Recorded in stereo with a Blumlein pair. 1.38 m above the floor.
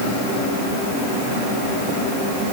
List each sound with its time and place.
Only background noise.